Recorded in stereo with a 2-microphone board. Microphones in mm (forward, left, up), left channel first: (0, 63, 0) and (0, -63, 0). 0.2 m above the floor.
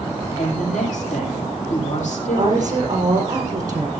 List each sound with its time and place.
0.4 s a woman speaking: 70° left (ahead or behind), 8.5 m
2.3 s a woman speaking: 30° right (ahead or behind), 5.5 m